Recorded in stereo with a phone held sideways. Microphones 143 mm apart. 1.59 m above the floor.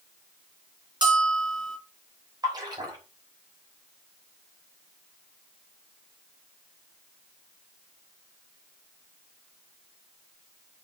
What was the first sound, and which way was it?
A bell, 35° right (ahead or behind).